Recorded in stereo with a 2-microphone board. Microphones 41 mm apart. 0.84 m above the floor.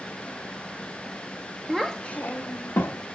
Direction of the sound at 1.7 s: 5° right (ahead or behind).